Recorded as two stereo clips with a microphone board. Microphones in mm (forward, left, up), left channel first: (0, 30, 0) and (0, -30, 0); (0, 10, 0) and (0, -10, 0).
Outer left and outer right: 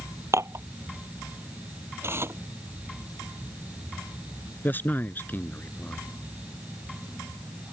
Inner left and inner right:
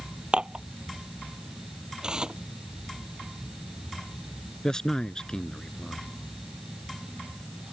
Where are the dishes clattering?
50° right (ahead or behind).